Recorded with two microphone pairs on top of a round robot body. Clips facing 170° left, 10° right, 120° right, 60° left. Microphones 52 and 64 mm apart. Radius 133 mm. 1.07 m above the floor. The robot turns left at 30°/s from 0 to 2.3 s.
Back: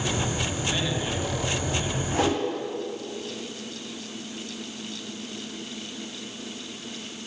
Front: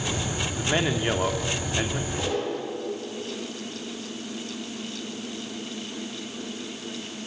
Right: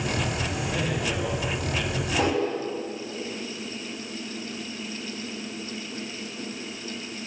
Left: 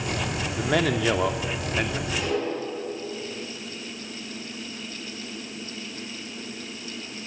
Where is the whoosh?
165° right, 7.5 m; by 2.4 s 170° right, 7.5 m.